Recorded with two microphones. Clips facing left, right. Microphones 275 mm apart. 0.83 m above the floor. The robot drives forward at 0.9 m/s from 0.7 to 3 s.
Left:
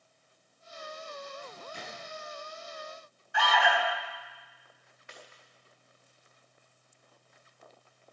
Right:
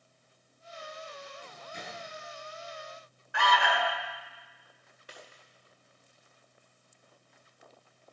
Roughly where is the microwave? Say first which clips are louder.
Left 2 dB; right.